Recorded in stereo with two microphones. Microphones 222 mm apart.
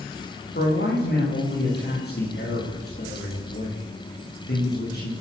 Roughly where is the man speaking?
Left.